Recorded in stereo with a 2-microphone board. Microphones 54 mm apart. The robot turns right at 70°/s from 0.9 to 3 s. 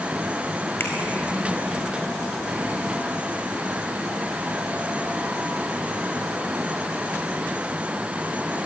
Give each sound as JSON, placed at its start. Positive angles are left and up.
{"t": 0.8, "sound": "a finger snap", "side_deg": 45, "distance_m": 4.5}